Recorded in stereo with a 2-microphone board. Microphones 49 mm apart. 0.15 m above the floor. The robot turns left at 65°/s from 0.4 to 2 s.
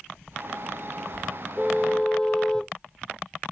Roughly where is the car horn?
Centre.